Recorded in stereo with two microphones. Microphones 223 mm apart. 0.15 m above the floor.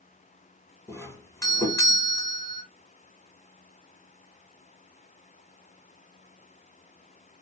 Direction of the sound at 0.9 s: 15° left (ahead or behind).